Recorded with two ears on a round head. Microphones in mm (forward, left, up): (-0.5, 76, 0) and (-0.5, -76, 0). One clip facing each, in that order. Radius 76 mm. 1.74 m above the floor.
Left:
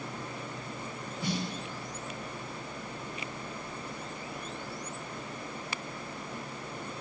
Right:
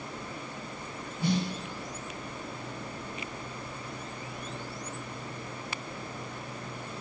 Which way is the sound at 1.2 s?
20° right (ahead or behind).